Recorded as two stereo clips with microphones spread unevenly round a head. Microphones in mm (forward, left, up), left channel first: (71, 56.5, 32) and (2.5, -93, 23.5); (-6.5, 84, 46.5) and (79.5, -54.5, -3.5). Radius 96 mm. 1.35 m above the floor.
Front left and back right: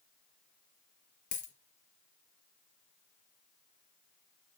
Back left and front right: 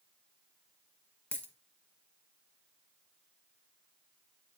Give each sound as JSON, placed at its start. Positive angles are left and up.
{"t": 1.3, "sound": "a dropped coin", "azimuth_deg": 65, "distance_m": 1.6}